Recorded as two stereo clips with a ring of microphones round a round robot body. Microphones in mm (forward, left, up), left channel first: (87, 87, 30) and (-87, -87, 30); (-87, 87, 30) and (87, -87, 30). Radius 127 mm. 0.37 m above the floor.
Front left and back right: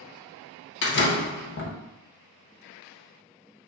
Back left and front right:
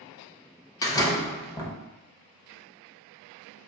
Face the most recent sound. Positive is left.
turn(degrees=65)